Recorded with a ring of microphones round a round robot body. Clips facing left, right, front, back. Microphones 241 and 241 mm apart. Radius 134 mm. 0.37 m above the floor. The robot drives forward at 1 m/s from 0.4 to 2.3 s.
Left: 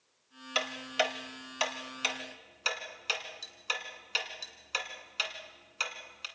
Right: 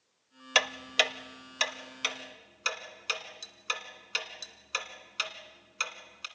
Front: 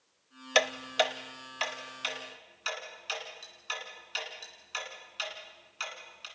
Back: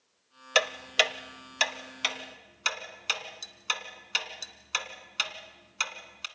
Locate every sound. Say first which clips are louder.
0.6 s ticking: right 1 dB, front 1 dB; 95° right, 0.7 m; by 6.3 s 160° right, 1.9 m